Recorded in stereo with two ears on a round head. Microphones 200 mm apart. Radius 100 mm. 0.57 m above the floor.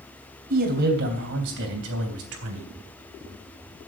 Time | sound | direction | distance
0.5 | a man speaking | 45° right (ahead or behind) | 3 m